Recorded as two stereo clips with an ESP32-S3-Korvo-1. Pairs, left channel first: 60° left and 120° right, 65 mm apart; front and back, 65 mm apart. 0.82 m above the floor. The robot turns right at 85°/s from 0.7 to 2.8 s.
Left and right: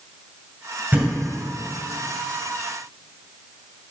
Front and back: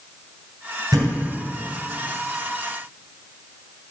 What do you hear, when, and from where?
0.9 s a thud: 175° right, 2 m; by 1.1 s 160° right, 2 m